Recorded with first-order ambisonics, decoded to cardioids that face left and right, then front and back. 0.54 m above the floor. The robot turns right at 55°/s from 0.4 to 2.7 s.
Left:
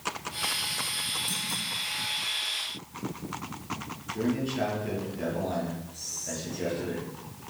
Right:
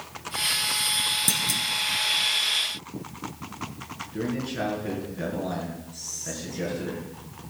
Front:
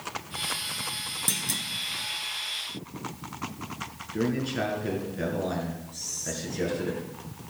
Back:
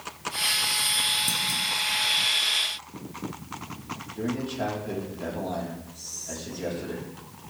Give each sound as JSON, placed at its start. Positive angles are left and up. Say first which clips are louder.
{"t": 1.3, "sound": "a clunk", "louder": "right 6 dB, back 4 dB", "azimuth_deg": -75, "distance_m": 0.9}
{"t": 4.1, "sound": "a man speaking", "louder": "left 1 dB, front 3 dB", "azimuth_deg": -30, "distance_m": 6.5}
{"t": 5.9, "sound": "whispering", "louder": "right 3 dB, front 3 dB", "azimuth_deg": -20, "distance_m": 7.0}